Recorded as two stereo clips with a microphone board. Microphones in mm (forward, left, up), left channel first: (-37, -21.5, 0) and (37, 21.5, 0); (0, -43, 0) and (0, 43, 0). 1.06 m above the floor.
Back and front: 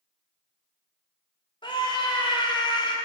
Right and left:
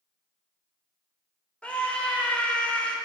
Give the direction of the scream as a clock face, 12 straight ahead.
6 o'clock.